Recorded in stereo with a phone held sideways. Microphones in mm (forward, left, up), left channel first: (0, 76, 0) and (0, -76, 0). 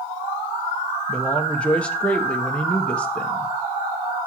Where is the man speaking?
5° left (ahead or behind), 1.1 m.